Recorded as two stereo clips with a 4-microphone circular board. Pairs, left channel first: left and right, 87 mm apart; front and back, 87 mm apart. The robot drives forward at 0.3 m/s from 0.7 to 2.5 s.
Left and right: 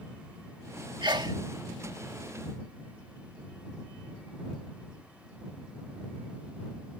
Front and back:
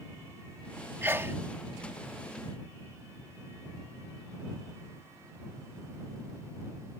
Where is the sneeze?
115° right; by 1.4 s 120° right.